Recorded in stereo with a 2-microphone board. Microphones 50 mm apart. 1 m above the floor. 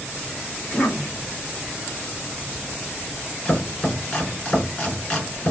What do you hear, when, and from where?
0.6 s a cough: 20° left (ahead or behind), 1.9 m
3.5 s chopping: 30° left (ahead or behind), 3 m